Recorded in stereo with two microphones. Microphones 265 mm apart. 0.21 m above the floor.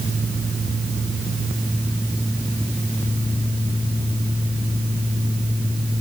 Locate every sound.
Only background noise.